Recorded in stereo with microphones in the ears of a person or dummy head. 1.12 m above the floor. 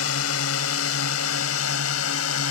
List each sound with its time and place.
0.0 s a drone: 80° left